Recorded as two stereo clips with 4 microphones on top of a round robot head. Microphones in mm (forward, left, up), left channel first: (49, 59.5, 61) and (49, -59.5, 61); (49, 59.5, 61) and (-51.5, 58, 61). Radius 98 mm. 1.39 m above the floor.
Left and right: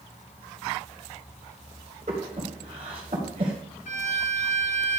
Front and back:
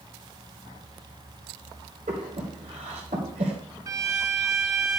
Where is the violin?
135° left, 1.2 m.